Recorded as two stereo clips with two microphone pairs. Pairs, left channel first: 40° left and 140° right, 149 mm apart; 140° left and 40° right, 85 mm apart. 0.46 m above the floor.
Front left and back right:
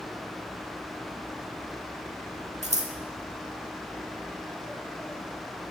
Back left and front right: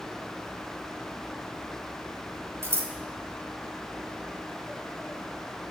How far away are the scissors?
About 0.8 m.